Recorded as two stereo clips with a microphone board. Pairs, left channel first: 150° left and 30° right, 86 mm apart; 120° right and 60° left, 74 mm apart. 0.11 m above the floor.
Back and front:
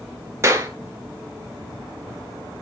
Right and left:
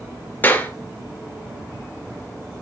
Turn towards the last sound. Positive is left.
turn(degrees=-70)